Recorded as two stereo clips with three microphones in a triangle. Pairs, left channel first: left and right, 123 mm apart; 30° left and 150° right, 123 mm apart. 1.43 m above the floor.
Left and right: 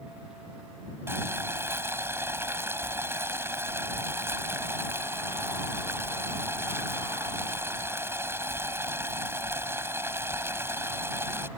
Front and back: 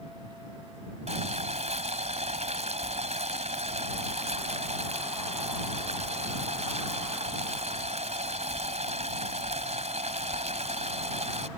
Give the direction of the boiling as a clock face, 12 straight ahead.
5 o'clock.